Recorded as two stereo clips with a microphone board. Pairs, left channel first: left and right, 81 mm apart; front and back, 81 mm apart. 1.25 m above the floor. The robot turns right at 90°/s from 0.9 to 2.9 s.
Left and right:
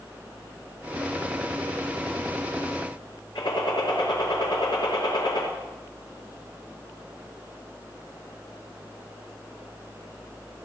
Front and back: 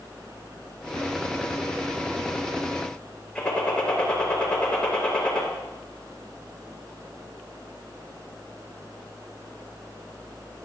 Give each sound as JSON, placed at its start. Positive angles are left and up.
{"t": 3.4, "sound": "a gunshot", "azimuth_deg": 75, "distance_m": 5.0}